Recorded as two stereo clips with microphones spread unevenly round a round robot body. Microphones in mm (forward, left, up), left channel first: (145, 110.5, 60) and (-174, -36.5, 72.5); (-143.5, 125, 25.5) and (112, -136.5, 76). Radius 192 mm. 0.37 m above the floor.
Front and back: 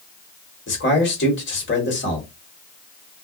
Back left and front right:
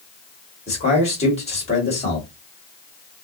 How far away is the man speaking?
About 2.0 m.